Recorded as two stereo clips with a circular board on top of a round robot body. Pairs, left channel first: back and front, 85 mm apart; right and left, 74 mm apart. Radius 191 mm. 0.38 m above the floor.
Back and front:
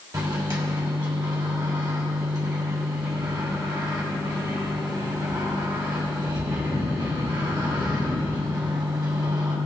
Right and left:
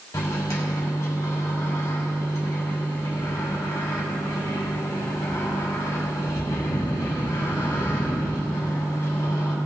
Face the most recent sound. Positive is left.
turn(degrees=-40)